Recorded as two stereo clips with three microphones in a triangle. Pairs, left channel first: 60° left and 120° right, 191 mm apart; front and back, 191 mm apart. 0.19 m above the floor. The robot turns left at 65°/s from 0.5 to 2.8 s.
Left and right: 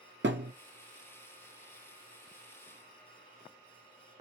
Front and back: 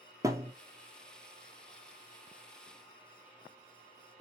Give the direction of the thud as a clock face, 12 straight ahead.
4 o'clock.